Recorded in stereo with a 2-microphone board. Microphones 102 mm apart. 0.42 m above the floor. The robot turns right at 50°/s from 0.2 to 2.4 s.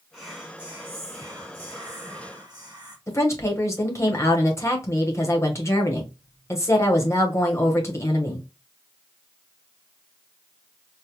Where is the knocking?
I don't hear knocking.